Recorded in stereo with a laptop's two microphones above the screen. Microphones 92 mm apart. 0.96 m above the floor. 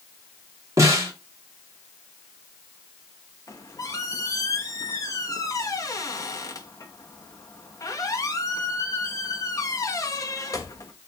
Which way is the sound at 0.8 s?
35° right (ahead or behind).